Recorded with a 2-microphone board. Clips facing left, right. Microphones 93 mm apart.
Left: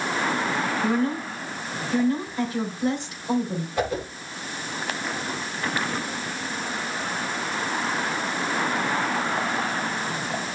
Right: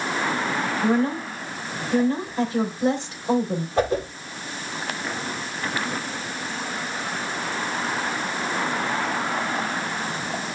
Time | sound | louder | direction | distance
0.8 | a woman speaking | right 5 dB | 30° right (ahead or behind) | 4 m
3.8 | a whoosh | right 4 dB | 35° right (ahead or behind) | 8.5 m